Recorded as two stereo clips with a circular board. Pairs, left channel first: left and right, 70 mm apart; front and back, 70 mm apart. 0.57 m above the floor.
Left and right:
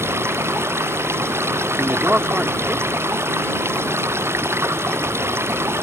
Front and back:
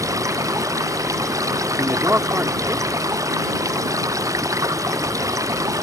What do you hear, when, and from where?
0.0 s running water: 145° right
1.8 s a man speaking: 145° right